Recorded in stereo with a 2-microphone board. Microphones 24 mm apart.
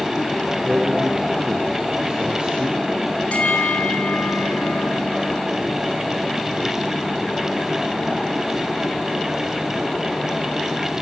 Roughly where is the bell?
Left.